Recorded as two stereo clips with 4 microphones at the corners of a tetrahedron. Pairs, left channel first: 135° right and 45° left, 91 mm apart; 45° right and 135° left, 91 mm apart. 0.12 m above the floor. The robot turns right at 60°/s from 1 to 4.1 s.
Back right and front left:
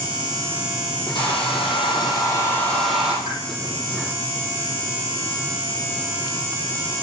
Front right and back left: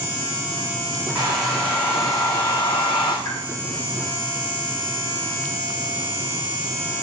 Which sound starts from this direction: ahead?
A pop, at 3.2 s.